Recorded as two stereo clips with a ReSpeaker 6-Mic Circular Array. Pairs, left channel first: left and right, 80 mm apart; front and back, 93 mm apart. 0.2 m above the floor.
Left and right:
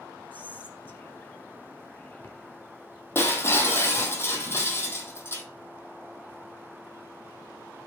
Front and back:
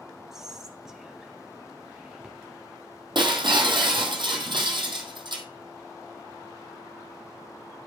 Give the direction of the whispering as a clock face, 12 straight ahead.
9 o'clock.